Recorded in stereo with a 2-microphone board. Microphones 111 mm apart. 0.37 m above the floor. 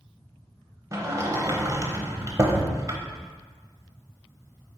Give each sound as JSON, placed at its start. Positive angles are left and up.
{"t": 0.9, "sound": "a sliding door", "side_deg": -30, "distance_m": 0.7}